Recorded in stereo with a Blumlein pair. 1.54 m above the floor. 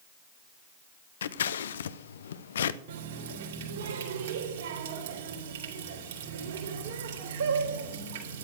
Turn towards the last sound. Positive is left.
turn(degrees=-60)